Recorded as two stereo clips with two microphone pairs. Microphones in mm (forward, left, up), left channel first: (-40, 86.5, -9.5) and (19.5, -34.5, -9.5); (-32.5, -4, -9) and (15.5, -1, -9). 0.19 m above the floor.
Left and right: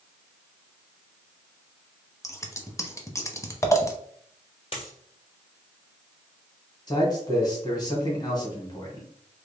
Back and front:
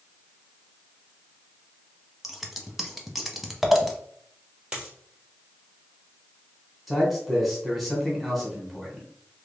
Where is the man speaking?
90° left, 1.5 m.